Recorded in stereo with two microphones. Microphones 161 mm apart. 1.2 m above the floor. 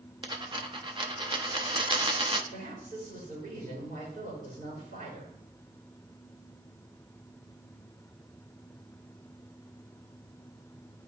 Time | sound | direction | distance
0.2 | a dropped coin | 30° right (ahead or behind) | 0.7 m
2.5 | a woman speaking | 65° right (ahead or behind) | 3.5 m